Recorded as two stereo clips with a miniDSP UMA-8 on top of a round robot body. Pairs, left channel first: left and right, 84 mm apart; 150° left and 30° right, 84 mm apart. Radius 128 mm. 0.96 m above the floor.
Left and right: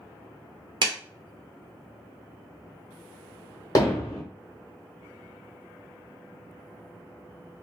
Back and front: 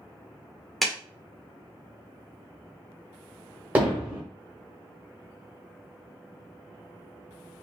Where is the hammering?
40° left, 0.9 m.